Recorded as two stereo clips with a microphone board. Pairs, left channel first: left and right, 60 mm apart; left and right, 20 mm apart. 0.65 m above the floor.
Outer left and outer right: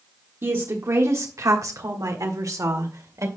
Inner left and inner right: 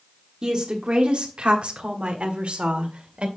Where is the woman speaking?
45° right (ahead or behind), 1.3 m; by 3.3 s 60° right (ahead or behind), 2 m.